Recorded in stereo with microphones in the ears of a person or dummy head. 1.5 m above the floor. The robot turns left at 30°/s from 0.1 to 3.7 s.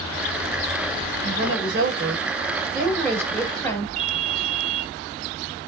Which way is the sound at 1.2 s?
110° right.